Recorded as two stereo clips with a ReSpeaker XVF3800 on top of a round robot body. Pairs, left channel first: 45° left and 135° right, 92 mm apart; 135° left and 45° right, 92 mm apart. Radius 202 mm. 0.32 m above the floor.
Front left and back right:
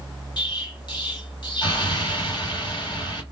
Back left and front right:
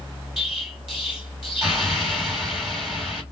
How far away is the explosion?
About 2 m.